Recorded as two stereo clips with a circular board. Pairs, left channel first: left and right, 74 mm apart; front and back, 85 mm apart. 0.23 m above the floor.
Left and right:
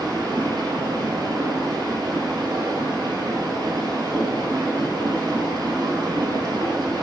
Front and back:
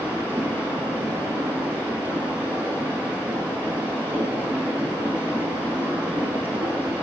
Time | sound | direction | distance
0.0 | running water | 110° right | 1.4 m